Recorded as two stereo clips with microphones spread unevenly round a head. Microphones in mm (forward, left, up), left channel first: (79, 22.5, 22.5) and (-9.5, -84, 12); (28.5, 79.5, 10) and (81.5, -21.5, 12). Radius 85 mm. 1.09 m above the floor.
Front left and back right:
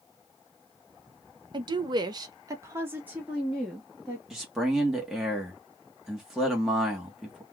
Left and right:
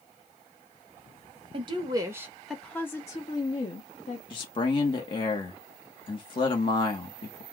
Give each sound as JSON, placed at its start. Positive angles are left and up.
{"t": 1.5, "sound": "a woman speaking", "azimuth_deg": -90, "distance_m": 0.8}
{"t": 4.3, "sound": "a man speaking", "azimuth_deg": 145, "distance_m": 1.1}